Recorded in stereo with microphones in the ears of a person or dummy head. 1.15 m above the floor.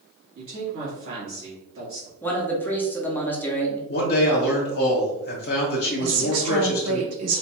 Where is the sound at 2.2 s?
10° left (ahead or behind), 0.6 m.